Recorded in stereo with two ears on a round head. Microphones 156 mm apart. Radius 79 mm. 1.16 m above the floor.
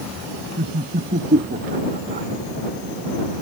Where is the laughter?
50° right (ahead or behind); by 2.3 s 45° right (ahead or behind).